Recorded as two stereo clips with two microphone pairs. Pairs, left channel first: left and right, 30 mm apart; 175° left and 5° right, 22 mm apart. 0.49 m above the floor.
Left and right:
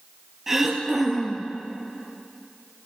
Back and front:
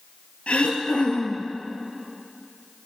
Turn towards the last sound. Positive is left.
turn(degrees=-170)